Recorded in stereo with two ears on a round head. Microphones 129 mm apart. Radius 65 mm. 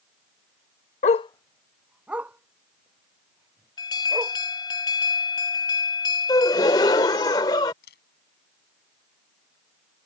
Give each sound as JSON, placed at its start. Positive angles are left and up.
{"t": 1.0, "sound": "a dog barking", "side_deg": 50}
{"t": 3.8, "sound": "an alarm", "side_deg": 30}
{"t": 6.3, "sound": "a gasp", "side_deg": 25}
{"t": 7.8, "sound": "a camera shutter", "side_deg": 80}